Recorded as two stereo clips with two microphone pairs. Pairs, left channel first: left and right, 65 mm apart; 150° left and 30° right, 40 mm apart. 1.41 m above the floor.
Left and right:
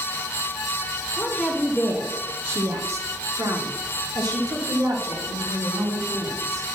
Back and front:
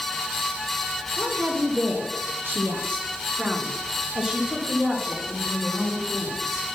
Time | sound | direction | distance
1.2 | a woman speaking | 5° left | 1.7 m